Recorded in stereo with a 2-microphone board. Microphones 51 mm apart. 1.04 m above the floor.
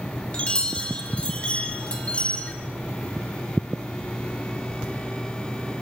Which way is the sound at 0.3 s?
20° left (ahead or behind).